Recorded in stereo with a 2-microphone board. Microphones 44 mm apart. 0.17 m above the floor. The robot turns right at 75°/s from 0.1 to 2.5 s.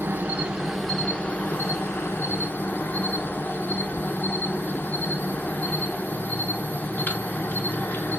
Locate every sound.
0.0 s an insect: 50° right, 0.7 m; by 8.2 s 130° left, 0.7 m